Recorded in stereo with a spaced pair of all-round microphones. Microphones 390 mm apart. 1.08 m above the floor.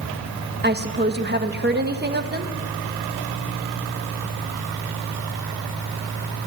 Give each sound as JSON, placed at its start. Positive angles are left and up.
{"t": 0.6, "sound": "a woman speaking", "side_deg": -25, "distance_m": 1.3}